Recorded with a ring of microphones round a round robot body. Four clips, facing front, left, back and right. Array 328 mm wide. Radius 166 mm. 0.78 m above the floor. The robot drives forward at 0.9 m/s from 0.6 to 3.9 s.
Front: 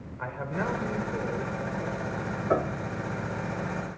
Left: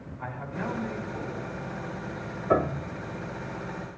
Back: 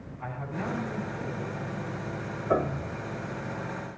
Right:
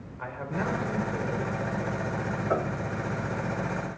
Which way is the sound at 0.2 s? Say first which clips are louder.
Right 3 dB, front 3 dB; 30° right.